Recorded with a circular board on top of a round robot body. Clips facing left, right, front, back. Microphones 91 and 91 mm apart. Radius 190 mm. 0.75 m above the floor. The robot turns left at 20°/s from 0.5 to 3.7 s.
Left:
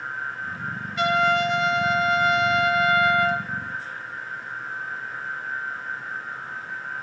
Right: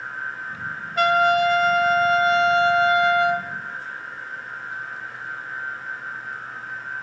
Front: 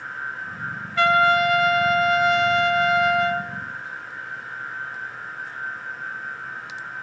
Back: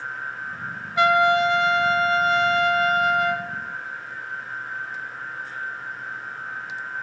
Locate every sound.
1.0 s a trumpet: 110° right, 1.2 m; by 3.5 s 160° right, 1.2 m